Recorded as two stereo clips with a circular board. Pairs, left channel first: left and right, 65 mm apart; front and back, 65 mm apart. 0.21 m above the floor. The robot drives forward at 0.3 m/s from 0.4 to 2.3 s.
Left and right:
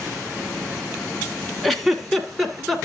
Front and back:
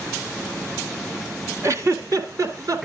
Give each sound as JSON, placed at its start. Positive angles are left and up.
{"t": 1.6, "sound": "a giggle", "azimuth_deg": 180, "distance_m": 0.9}